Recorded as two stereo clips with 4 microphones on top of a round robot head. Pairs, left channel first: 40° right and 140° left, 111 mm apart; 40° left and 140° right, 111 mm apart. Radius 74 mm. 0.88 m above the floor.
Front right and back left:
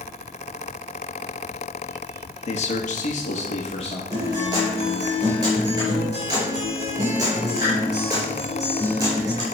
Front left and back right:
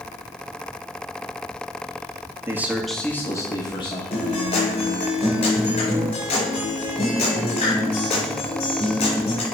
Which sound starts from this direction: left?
A guitar, at 4.1 s.